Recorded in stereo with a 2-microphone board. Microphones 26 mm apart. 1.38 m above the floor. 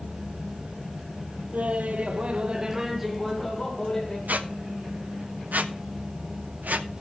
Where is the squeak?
75° right (ahead or behind), 1.0 m.